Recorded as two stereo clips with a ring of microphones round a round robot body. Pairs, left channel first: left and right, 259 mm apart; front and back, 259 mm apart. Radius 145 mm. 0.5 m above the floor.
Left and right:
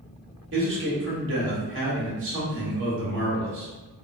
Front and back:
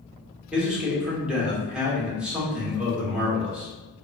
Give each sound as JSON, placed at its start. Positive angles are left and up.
{"t": 0.5, "sound": "a man speaking", "azimuth_deg": -95, "distance_m": 1.7}